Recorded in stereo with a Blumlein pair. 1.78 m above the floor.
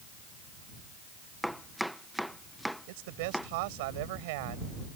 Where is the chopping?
Straight ahead.